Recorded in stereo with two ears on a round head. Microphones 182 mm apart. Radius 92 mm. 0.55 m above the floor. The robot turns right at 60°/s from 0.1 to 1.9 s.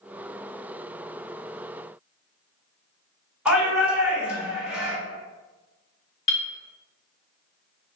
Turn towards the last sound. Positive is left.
turn(degrees=30)  # may be behind; listen again after turning